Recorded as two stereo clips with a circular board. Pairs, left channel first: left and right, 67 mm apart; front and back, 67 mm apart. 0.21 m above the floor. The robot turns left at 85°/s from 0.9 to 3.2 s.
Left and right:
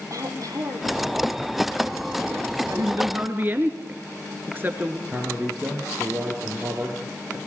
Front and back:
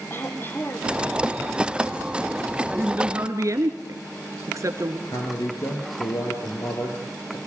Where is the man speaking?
30° right, 3.5 m.